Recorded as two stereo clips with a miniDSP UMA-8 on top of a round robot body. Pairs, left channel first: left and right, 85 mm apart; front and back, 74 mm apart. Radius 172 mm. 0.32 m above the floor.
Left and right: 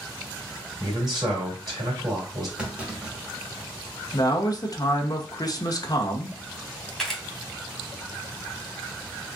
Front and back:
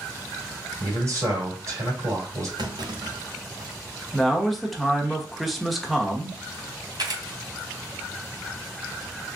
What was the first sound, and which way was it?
A man speaking, 135° right.